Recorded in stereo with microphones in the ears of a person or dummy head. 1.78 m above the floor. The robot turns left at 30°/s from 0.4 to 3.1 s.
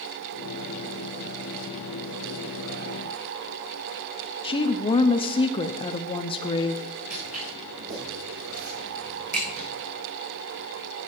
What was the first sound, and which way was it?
A woman speaking, 30° left (ahead or behind).